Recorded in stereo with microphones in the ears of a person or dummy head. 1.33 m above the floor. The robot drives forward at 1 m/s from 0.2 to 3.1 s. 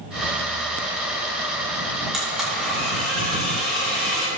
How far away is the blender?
About 2.0 m.